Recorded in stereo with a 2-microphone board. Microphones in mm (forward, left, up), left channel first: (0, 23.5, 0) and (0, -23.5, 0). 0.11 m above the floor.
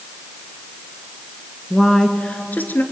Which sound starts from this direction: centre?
A woman speaking, at 1.7 s.